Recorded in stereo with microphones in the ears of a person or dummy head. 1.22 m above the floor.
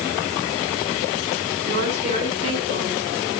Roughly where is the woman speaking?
Right.